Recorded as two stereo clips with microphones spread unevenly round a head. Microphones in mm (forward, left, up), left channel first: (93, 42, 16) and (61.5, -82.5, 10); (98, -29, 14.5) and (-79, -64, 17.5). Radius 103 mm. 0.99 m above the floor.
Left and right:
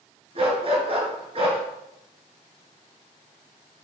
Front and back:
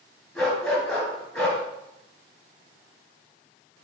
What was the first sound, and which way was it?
A dog barking, 80° right.